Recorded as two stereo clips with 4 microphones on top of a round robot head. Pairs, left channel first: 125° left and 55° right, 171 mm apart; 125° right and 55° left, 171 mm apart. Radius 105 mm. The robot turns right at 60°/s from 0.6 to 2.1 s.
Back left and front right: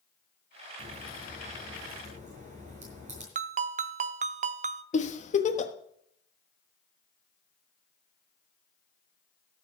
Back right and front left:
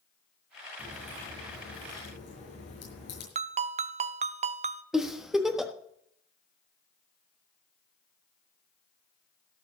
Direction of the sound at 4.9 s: 140° left.